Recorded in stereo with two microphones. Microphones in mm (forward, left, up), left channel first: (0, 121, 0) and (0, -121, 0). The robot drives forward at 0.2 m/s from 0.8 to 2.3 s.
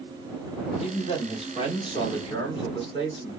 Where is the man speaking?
25° left (ahead or behind), 1.0 m; by 3.4 s 20° left (ahead or behind), 1.1 m.